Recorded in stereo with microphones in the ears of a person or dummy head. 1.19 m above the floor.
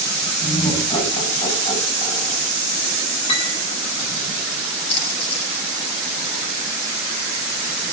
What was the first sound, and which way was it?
Laughter, 30° left (ahead or behind).